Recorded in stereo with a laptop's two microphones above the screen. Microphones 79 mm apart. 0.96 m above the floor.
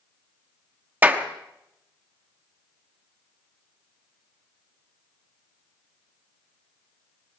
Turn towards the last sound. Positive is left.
turn(degrees=-20)  # may be behind; listen again after turning